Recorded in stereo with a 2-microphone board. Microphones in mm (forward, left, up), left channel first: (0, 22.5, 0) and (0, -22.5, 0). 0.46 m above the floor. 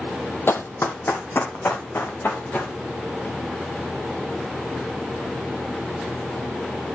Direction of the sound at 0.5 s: 60° left (ahead or behind).